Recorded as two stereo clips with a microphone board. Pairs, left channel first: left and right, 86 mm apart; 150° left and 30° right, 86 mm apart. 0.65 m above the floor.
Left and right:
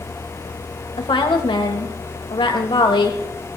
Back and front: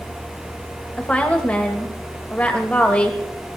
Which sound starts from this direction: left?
A woman speaking, at 1.0 s.